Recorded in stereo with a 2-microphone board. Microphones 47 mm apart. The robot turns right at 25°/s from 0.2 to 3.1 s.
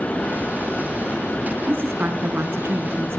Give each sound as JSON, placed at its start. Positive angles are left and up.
{"t": 1.7, "sound": "a woman speaking", "azimuth_deg": -120, "distance_m": 2.0}